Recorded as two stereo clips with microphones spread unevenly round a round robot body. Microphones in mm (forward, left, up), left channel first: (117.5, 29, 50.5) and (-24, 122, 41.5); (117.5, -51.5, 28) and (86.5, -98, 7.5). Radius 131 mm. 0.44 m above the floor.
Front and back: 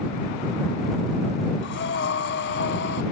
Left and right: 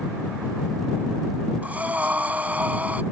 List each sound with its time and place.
1.6 s breathing: 60° right